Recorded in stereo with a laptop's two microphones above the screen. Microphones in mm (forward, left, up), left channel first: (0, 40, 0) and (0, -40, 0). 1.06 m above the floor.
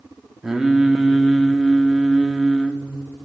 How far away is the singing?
About 0.9 m.